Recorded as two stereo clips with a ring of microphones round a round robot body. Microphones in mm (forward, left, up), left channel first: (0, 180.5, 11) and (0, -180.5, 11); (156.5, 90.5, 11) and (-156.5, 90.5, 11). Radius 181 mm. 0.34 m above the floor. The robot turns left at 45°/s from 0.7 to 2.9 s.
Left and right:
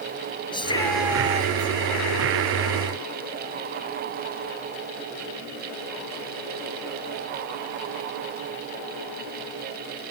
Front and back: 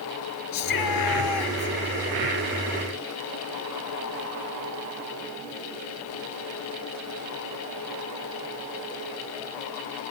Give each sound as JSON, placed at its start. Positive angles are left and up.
{"t": 0.5, "sound": "a shout", "azimuth_deg": 10}